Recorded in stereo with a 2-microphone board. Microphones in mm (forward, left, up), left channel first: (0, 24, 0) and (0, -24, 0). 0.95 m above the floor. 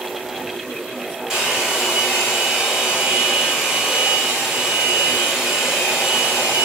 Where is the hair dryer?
10° right (ahead or behind), 6 m.